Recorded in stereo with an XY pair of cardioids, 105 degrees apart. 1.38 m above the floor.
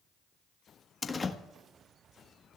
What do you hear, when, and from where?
1.0 s a door slam: 25° left, 1.4 m